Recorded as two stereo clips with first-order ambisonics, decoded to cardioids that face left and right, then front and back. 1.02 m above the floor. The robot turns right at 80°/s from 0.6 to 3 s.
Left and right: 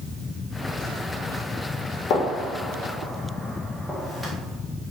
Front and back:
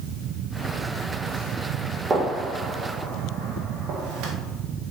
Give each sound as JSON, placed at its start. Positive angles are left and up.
{"t": 2.1, "sound": "a gunshot", "azimuth_deg": 110, "distance_m": 0.6}